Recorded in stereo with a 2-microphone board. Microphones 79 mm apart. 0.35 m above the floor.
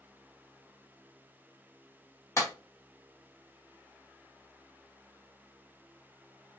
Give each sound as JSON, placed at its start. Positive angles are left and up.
{"t": 2.4, "sound": "a clap", "side_deg": 40, "distance_m": 1.4}